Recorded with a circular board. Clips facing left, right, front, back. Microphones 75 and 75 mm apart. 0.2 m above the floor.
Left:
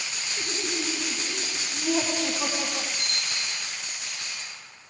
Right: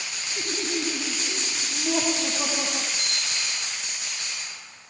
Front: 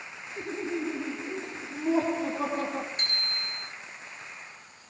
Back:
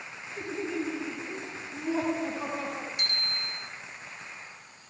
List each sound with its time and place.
0.4 s laughter: 65° right, 6 m; by 2.9 s 30° right, 6.5 m
3.0 s a bicycle bell: 55° right, 9 m